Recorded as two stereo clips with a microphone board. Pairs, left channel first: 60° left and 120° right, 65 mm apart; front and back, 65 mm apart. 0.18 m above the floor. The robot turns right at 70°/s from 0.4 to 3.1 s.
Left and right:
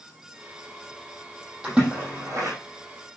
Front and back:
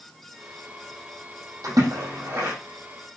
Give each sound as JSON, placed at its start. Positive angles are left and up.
{"t": 1.6, "sound": "a splash", "azimuth_deg": 160, "distance_m": 4.5}